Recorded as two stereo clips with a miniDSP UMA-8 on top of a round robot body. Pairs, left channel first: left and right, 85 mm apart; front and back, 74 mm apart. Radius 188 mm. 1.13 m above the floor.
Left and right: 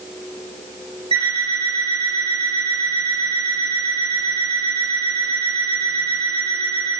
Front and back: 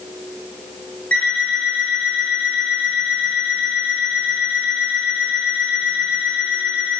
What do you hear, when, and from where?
1.1 s an alarm clock: 70° right, 2.5 m